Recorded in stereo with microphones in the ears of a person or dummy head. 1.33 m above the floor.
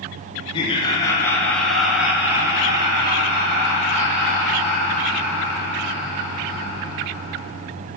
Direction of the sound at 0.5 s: 30° left (ahead or behind).